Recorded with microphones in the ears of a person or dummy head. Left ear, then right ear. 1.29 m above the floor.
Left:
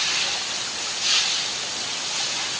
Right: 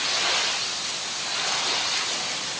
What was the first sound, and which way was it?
Only background noise.